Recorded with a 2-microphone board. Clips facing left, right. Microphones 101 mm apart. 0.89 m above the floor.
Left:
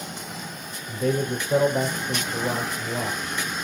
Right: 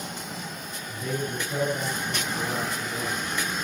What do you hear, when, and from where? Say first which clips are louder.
0.9 s a man speaking: left 7 dB; 75° left (ahead or behind), 4 m